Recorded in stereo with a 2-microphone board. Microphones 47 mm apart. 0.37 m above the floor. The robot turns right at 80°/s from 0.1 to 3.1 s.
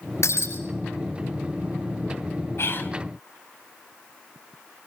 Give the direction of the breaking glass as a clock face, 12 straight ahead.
9 o'clock.